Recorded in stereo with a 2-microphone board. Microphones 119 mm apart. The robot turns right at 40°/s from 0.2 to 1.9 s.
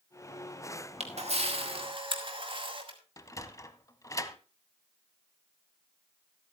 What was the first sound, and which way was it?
A camera shutter, 65° right (ahead or behind).